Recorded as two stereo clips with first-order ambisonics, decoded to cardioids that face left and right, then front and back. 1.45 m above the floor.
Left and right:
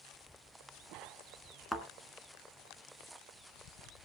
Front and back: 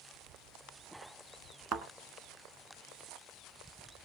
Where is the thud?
170° left, 1.7 m.